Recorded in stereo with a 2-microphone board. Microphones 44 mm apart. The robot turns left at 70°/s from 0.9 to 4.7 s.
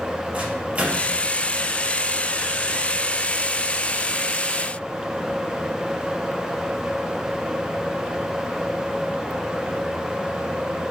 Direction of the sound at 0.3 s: 30° right (ahead or behind).